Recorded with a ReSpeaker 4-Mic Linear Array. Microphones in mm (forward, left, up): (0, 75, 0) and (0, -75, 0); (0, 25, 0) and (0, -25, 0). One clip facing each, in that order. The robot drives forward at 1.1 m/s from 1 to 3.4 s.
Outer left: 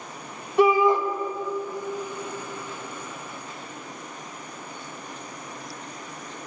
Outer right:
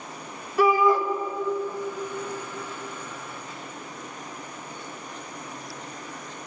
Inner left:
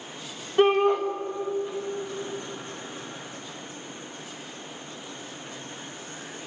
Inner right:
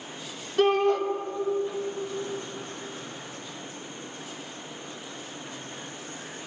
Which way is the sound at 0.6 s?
20° left (ahead or behind).